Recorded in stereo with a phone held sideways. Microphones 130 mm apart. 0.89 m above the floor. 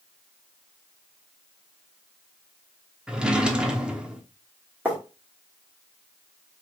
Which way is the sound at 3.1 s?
5° right (ahead or behind).